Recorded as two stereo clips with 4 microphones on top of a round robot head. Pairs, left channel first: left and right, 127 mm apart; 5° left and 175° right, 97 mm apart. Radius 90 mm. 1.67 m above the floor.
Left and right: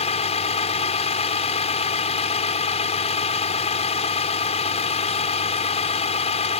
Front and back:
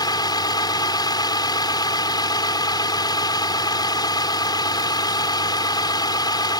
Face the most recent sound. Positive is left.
turn(degrees=50)